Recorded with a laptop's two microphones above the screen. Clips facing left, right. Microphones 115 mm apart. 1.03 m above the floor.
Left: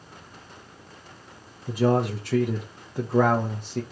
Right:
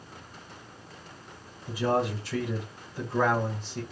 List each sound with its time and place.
1.7 s a man speaking: 55° left (ahead or behind), 0.6 m